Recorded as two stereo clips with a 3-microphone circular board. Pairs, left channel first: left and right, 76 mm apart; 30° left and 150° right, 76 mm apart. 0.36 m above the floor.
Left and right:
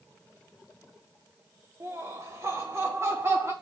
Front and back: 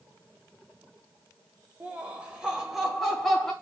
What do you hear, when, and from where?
1.8 s laughter: 95° right, 1.3 m; by 3.5 s 50° right, 1.6 m